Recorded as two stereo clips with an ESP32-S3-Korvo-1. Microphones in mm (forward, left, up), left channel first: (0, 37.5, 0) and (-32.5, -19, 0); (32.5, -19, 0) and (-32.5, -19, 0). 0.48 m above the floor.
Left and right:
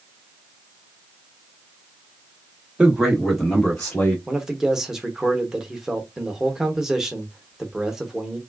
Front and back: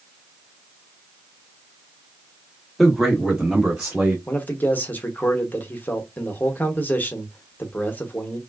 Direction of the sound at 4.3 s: 45° right.